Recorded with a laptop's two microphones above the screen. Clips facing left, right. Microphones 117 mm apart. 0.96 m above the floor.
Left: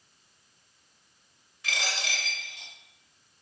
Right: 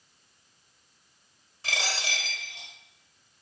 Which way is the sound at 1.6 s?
35° right (ahead or behind).